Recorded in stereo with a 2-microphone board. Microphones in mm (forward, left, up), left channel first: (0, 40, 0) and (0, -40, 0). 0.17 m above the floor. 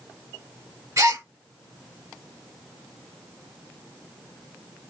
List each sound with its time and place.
1.0 s a gasp: 45° right (ahead or behind), 1.4 m